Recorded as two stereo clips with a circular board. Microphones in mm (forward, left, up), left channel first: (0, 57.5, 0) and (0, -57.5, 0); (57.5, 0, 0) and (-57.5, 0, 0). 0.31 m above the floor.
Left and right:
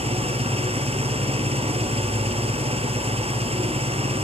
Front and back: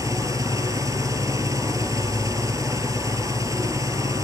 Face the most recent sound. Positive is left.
turn(degrees=-120)